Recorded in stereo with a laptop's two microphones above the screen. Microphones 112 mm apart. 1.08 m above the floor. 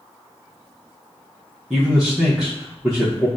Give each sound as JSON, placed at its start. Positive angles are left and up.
{"t": 1.7, "sound": "a man speaking", "side_deg": 0, "distance_m": 0.9}